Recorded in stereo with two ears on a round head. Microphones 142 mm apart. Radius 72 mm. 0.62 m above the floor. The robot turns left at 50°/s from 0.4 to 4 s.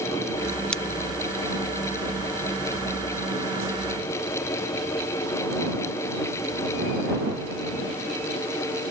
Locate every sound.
0.7 s scissors: 5° left (ahead or behind); by 0.8 s centre (ahead or behind)